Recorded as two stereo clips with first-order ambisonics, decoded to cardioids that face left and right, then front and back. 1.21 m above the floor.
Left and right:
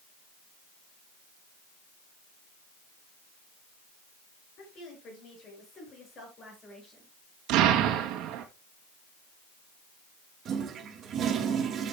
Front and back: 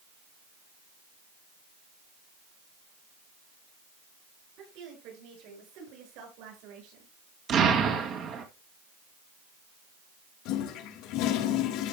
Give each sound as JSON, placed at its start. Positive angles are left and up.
{"t": 4.6, "sound": "a woman speaking", "azimuth_deg": 140, "distance_m": 6.0}
{"t": 7.5, "sound": "an explosion", "azimuth_deg": -125, "distance_m": 2.0}
{"t": 10.4, "sound": "a toilet flushing", "azimuth_deg": -30, "distance_m": 1.7}